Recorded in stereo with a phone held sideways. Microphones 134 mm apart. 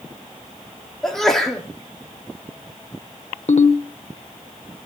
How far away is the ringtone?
About 1.0 m.